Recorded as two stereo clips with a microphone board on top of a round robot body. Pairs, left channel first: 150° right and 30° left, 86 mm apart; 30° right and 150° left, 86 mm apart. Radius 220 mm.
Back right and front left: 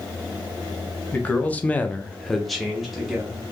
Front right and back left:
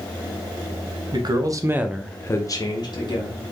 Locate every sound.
1.1 s a man speaking: 140° left, 1.0 m; by 3.4 s 55° right, 1.5 m